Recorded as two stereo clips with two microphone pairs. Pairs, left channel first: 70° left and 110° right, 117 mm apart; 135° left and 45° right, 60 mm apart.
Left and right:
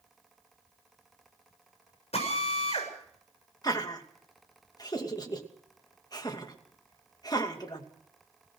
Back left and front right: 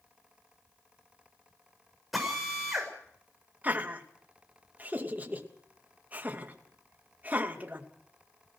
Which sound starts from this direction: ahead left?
A drill, at 2.1 s.